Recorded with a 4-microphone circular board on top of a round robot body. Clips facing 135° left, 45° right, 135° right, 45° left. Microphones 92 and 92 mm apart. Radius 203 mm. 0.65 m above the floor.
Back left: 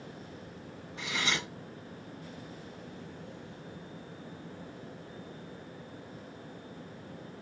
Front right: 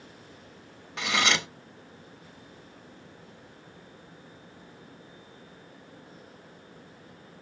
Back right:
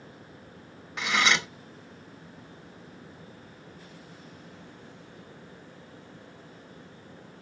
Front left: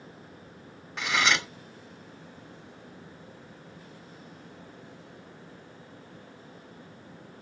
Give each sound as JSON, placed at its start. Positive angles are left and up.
{"t": 1.0, "sound": "cutlery clinking", "azimuth_deg": -50, "distance_m": 0.8}